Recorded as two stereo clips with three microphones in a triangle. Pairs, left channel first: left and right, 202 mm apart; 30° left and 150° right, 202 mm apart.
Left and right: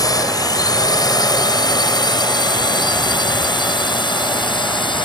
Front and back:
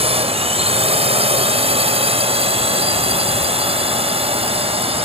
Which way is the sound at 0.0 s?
160° left.